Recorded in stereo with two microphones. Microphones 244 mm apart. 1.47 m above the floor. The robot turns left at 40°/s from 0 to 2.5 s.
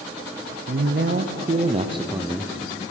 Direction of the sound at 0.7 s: 105° right.